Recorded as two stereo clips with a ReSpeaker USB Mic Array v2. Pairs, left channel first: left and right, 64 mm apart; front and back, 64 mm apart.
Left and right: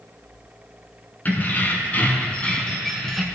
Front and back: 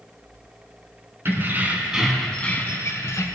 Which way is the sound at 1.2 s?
145° left.